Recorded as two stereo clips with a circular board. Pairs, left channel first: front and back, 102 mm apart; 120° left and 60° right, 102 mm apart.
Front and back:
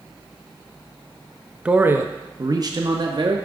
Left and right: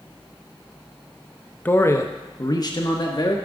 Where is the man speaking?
135° left, 0.6 m; by 3.4 s 150° left, 1.3 m.